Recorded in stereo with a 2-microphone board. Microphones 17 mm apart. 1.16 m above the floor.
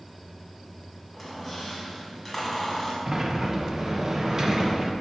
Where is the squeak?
5° right (ahead or behind), 2.0 m.